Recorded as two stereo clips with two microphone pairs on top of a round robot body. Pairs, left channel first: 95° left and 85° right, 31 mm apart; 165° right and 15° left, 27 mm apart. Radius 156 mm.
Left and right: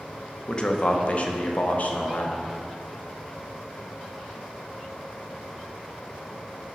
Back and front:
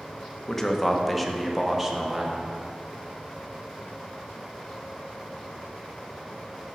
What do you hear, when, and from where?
0.5 s a man speaking: 135° left, 1.3 m; by 2.4 s 85° left, 1.9 m